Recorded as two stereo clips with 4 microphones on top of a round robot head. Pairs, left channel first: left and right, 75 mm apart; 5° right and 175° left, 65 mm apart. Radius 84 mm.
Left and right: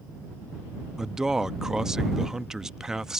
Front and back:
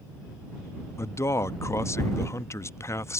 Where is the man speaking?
10° right.